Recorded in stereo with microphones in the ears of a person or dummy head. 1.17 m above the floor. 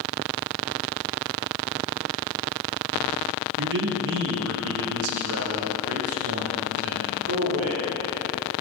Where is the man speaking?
60° right (ahead or behind), 1.0 m; by 7.9 s 85° right, 3.5 m.